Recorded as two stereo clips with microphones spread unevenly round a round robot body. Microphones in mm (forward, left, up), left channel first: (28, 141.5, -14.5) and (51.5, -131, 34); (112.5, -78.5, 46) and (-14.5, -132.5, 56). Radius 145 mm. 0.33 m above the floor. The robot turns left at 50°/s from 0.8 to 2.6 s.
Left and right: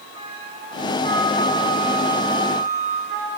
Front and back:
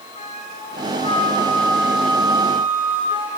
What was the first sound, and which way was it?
A flute, 15° right.